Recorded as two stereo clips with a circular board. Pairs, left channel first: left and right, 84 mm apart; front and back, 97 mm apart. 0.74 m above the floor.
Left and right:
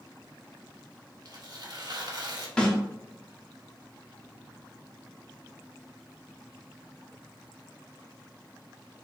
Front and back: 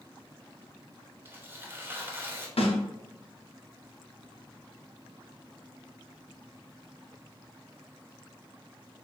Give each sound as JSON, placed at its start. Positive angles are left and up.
{"t": 1.2, "sound": "tearing paper", "azimuth_deg": -115, "distance_m": 0.6}
{"t": 2.6, "sound": "a snare drum", "azimuth_deg": 10, "distance_m": 0.6}